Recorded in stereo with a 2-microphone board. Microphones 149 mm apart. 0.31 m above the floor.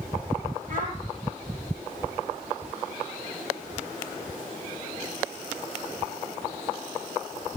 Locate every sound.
0.7 s a child speaking: 65° right (ahead or behind), 5.5 m